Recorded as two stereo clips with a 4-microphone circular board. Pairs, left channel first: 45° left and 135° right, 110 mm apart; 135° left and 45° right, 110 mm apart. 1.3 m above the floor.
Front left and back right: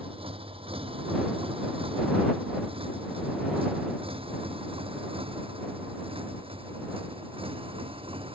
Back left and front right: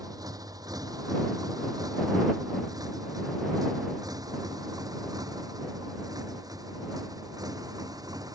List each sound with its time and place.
0.0 s a motorcycle: 100° right